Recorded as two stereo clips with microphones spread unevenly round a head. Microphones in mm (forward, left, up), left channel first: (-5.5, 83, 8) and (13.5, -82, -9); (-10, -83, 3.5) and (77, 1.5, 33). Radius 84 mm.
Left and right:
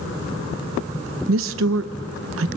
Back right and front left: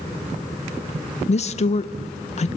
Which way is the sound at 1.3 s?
100° right.